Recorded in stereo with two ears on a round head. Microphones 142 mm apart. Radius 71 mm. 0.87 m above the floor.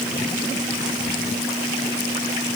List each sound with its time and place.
Only background noise.